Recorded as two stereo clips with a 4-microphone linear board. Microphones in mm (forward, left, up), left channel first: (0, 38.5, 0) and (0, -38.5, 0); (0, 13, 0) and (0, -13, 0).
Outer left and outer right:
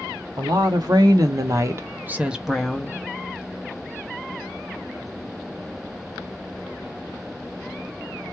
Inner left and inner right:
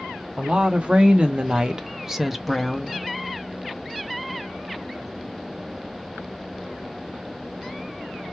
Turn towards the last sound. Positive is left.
turn(degrees=15)  # may be behind; listen again after turning